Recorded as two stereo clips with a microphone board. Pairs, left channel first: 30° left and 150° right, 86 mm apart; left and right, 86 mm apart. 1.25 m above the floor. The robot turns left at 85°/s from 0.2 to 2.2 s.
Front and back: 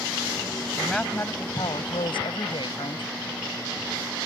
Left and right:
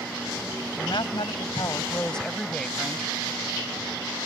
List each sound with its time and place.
0.8 s a woman speaking: 130° left; by 3.1 s 5° left